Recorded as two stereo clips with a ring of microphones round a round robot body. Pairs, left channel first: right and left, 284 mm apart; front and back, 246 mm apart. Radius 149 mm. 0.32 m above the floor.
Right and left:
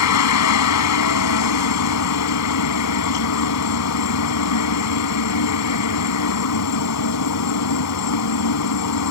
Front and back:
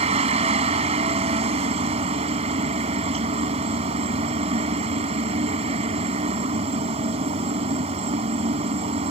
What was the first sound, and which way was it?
A helicopter, 110° right.